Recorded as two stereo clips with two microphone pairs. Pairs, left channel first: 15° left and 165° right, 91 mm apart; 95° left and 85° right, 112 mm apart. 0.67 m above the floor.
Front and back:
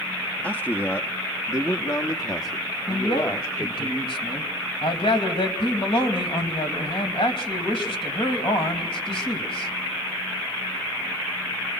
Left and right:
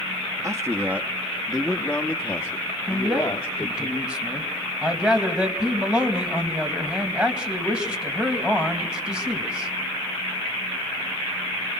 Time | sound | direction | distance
0.4 | a man speaking | 45° right | 1.0 m
2.9 | a man speaking | straight ahead | 3 m